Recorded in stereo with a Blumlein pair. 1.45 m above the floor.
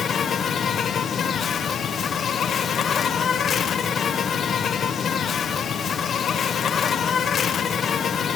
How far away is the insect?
About 0.8 m.